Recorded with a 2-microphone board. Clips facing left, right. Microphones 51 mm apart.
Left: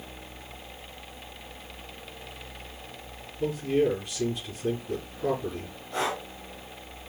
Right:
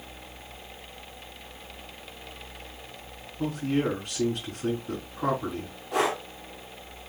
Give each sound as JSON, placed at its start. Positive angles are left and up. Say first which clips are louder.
{"t": 3.4, "sound": "a man speaking", "louder": "left 2 dB", "side_deg": -65, "distance_m": 5.0}
{"t": 5.9, "sound": "breathing", "louder": "right 4 dB", "side_deg": -85, "distance_m": 3.0}